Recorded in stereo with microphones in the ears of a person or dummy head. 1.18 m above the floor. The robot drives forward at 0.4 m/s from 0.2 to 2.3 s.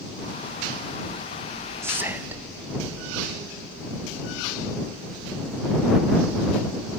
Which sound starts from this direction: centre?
Whispering, at 1.8 s.